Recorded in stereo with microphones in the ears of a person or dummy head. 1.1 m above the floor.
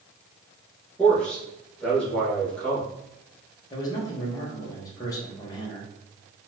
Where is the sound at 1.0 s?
5° left (ahead or behind), 1.1 m.